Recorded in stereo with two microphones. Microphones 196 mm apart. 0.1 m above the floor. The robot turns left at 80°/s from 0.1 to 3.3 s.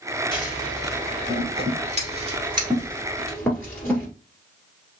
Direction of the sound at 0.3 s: 25° left (ahead or behind).